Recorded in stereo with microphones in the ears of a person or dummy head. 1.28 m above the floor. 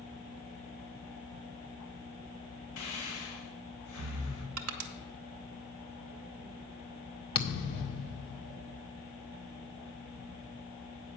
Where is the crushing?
80° right, 0.9 m.